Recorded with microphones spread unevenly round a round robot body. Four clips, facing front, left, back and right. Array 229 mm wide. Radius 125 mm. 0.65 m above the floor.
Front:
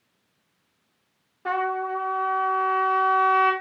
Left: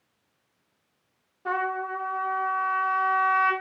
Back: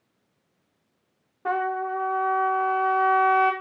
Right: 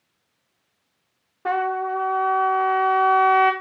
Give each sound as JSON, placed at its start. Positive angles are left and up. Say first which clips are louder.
{"t": 1.4, "sound": "a trumpet", "louder": "right 5 dB, even", "azimuth_deg": -75, "distance_m": 0.6}